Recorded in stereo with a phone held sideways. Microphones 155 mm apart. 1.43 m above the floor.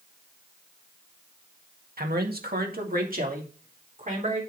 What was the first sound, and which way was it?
A man speaking, 80° right.